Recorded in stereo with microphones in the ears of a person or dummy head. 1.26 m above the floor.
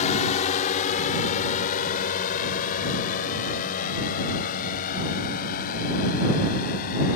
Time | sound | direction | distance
0.0 | a drone | 40° left (ahead or behind) | ?